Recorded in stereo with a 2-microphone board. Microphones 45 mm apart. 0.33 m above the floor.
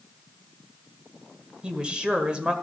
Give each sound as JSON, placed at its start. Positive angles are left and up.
{"t": 1.6, "sound": "a woman speaking", "side_deg": -20, "distance_m": 1.5}